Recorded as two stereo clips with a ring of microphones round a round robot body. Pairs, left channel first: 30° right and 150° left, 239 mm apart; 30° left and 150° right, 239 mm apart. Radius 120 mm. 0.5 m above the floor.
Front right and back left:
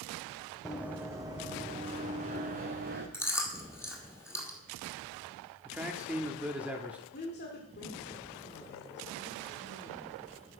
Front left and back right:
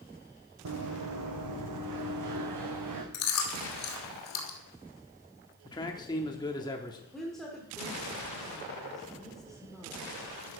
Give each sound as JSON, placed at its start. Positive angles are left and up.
{"t": 0.7, "sound": "running footsteps", "azimuth_deg": -120, "distance_m": 1.4}
{"t": 3.1, "sound": "chewing", "azimuth_deg": 50, "distance_m": 2.0}
{"t": 5.7, "sound": "a man speaking", "azimuth_deg": 75, "distance_m": 0.9}
{"t": 7.1, "sound": "a woman speaking", "azimuth_deg": -55, "distance_m": 1.5}